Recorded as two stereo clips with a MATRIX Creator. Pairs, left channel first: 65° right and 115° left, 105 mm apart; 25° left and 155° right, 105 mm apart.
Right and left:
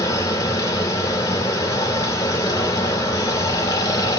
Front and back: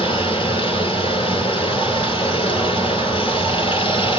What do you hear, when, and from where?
0.0 s running water: 15° right, 2.5 m